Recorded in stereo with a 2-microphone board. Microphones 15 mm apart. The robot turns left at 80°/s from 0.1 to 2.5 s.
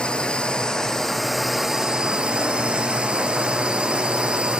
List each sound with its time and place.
0.0 s a drone: 100° left; by 4.6 s 90° right